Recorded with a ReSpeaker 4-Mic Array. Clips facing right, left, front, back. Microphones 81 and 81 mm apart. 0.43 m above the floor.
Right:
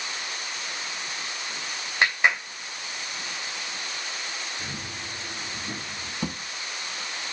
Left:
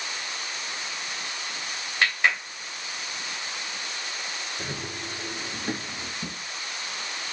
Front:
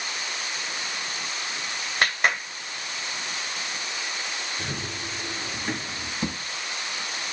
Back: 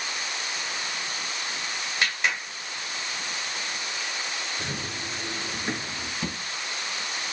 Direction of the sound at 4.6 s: 90° left.